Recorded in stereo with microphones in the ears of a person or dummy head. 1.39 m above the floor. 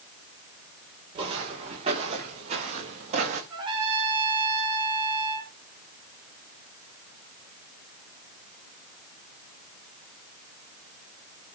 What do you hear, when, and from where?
1.1 s footsteps: 30° right (ahead or behind), 6.5 m; by 3.4 s 40° right (ahead or behind), 5.5 m
3.5 s a trumpet: 25° right (ahead or behind), 4 m